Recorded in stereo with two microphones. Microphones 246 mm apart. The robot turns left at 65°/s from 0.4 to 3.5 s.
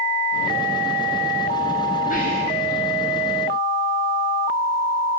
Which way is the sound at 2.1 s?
30° left (ahead or behind).